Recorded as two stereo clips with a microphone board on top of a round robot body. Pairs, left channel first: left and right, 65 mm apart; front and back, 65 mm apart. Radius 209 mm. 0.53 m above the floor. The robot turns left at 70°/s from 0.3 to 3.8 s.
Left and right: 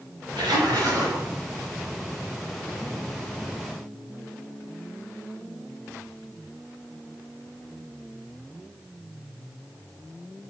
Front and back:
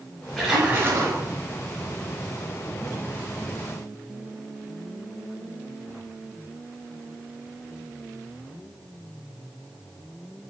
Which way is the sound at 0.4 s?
95° right.